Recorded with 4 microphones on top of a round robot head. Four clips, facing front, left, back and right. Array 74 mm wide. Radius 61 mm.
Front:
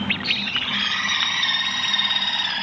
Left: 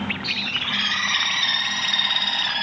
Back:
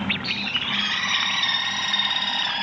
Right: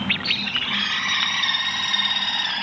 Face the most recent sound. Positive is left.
turn(degrees=125)